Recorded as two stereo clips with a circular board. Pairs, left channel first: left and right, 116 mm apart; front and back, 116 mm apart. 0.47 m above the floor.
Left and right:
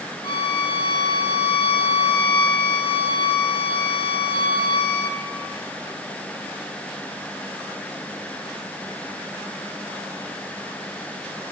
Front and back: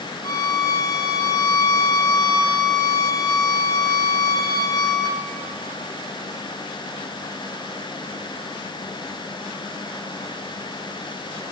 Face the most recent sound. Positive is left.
turn(degrees=50)